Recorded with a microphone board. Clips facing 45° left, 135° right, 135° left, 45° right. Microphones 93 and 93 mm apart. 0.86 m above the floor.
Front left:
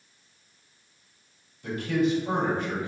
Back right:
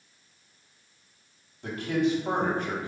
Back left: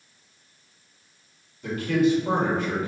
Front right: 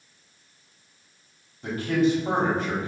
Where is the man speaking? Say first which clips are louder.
Front left 1 dB, back left 1 dB; 100° right, 1.8 m.